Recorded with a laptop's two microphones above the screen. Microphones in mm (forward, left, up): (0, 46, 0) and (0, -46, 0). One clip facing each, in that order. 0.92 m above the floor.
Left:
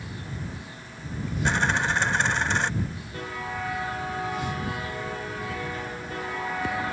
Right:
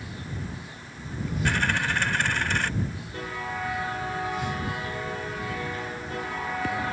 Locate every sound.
1.4 s a dropped coin: 20° left (ahead or behind)